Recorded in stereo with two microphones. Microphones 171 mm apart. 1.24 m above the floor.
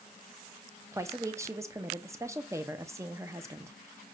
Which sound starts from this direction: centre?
A woman speaking, at 0.9 s.